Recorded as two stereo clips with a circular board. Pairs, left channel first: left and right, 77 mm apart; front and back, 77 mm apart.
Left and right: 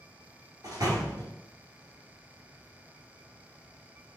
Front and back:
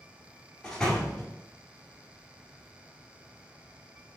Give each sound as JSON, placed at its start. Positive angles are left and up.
{"t": 0.6, "sound": "a door slam", "azimuth_deg": -80, "distance_m": 1.4}